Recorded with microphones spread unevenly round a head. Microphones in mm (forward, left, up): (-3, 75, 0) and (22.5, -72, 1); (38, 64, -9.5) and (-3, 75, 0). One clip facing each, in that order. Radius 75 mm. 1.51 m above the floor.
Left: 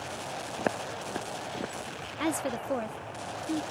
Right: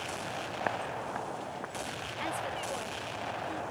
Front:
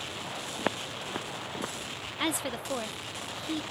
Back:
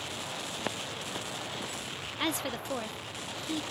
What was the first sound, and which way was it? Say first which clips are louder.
Footsteps: left 3 dB, front 7 dB; 50° left.